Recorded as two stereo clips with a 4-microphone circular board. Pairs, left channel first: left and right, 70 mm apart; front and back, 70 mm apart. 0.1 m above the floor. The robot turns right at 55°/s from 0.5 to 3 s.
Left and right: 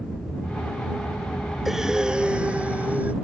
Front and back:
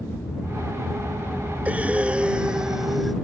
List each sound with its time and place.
0.0 s an aircraft: 10° left; by 3.2 s 165° left
1.6 s breathing: 170° right; by 3.1 s 95° right